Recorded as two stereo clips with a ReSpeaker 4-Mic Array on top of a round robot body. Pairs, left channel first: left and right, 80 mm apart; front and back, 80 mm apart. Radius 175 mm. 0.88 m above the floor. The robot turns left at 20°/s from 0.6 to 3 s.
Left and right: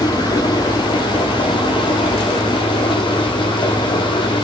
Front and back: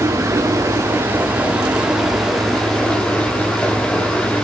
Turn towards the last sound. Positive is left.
turn(degrees=75)